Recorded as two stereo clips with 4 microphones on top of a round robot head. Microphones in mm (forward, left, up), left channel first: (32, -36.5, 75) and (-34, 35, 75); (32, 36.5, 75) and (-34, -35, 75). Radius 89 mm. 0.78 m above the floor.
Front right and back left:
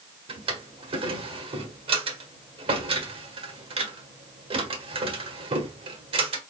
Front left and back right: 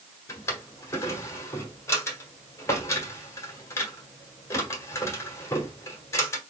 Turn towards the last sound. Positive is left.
turn(degrees=110)